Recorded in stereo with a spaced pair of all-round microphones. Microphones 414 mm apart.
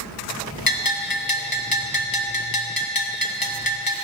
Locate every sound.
0.7 s a bell: 55° left (ahead or behind), 1.3 m